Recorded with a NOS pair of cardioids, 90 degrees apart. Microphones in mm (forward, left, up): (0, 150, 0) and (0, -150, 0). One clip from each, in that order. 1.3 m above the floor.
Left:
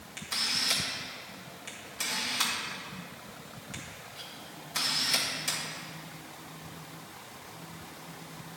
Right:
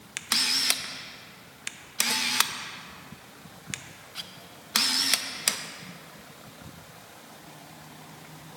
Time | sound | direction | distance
0.2 | a camera shutter | 65° right | 0.5 m